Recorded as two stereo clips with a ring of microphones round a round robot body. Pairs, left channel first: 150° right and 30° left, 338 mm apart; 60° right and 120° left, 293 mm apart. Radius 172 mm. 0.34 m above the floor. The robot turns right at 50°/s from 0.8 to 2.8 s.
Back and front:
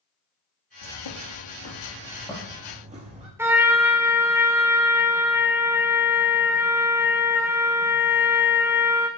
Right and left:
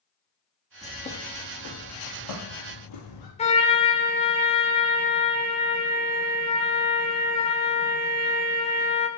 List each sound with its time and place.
0.8 s a bird: 140° right, 3.5 m; by 3.3 s 40° right, 3.5 m
3.4 s a trumpet: 40° right, 1.5 m